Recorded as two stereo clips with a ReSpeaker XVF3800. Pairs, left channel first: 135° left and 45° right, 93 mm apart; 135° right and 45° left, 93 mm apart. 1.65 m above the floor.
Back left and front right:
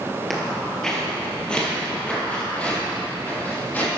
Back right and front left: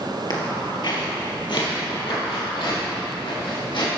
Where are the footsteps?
135° right, 2.5 m; by 3.9 s 155° right, 4.5 m.